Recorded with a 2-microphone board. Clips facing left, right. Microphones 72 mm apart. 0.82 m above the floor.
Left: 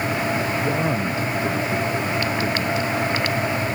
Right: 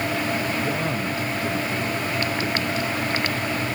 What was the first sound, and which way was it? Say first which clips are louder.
A man speaking: left 3 dB; 15° left (ahead or behind).